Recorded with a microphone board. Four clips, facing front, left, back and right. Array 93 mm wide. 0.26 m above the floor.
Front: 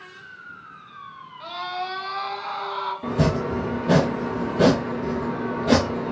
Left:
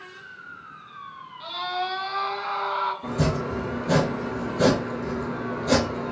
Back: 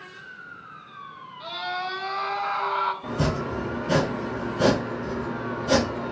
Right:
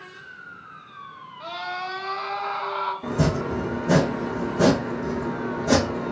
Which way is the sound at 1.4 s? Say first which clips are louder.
Left 2 dB, front 1 dB; 55° right.